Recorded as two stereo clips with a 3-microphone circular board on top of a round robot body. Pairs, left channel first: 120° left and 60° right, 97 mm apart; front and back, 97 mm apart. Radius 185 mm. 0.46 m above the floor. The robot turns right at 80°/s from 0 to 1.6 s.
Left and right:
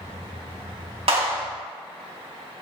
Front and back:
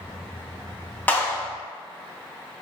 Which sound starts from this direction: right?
A clap, at 1.1 s.